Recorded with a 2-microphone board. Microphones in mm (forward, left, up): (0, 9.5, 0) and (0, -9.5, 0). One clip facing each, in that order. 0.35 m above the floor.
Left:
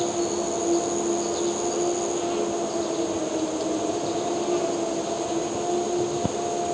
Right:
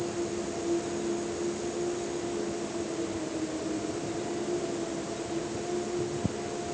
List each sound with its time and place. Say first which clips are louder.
0.0 s an insect: left 7 dB; 75° left (ahead or behind)